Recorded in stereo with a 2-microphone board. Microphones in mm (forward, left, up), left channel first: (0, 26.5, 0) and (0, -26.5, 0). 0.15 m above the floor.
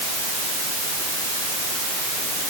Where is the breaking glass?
I don't hear breaking glass.